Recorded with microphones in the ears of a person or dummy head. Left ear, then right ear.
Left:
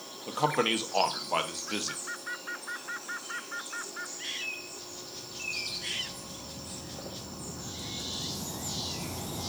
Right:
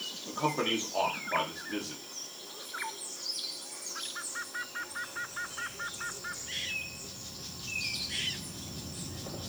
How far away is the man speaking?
About 0.9 m.